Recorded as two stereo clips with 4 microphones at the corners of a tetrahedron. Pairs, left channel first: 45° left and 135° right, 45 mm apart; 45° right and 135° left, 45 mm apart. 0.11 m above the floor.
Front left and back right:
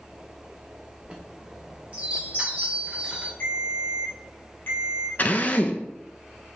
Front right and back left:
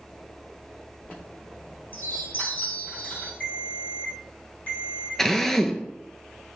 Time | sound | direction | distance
1.0 | a chime | 80° right | 1.8 m
3.4 | a ringtone | 5° left | 1.5 m
5.2 | a drill | 30° left | 0.5 m